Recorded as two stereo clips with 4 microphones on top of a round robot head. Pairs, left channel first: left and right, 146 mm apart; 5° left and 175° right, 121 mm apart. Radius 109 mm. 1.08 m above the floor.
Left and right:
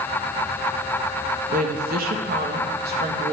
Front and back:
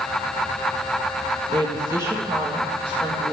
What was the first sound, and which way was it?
A woman speaking, 120° right.